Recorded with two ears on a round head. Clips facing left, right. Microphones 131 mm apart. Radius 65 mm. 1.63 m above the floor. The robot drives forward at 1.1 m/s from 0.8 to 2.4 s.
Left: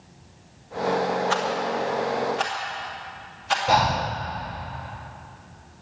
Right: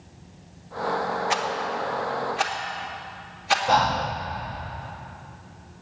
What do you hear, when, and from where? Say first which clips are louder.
1.3 s a rattle: left 2 dB; 20° right (ahead or behind), 1.1 m; by 3.6 s 10° right (ahead or behind), 2 m
3.7 s breathing: left 1 dB; 10° left (ahead or behind), 0.7 m